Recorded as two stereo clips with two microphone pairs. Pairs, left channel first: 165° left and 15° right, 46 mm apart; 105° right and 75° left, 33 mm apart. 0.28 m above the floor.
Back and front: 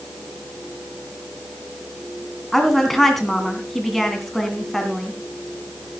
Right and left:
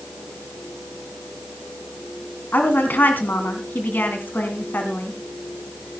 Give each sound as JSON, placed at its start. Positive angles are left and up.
{"t": 2.5, "sound": "a woman speaking", "azimuth_deg": -105, "distance_m": 2.0}